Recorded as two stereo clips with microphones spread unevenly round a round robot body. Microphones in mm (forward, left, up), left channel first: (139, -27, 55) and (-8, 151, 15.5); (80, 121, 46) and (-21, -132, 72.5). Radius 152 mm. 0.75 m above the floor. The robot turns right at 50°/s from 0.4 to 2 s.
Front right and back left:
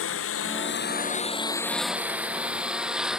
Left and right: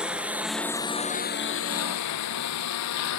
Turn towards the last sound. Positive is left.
turn(degrees=40)